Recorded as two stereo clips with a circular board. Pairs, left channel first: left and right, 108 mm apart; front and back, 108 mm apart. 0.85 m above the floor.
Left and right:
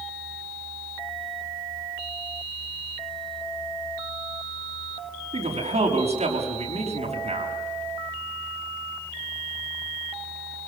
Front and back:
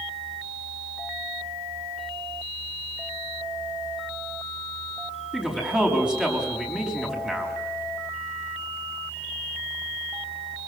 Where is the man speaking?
100° right, 5.5 m.